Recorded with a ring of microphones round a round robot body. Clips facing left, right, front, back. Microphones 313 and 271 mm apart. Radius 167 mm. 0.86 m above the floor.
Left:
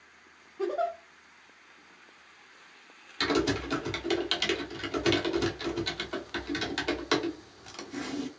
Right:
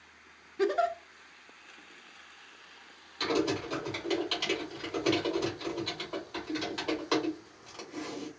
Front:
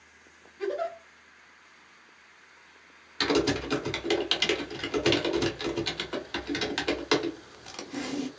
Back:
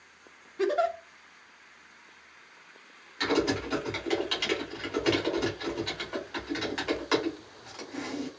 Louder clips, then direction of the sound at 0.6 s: Right 3 dB, back 4 dB; 145° right.